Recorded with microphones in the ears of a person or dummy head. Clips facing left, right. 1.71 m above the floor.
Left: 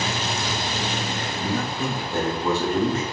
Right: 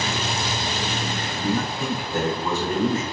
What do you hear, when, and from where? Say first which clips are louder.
1.4 s a man speaking: right 2 dB; 30° left (ahead or behind), 2.0 m